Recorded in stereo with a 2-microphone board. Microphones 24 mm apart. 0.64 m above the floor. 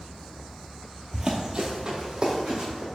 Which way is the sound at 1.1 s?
25° right (ahead or behind).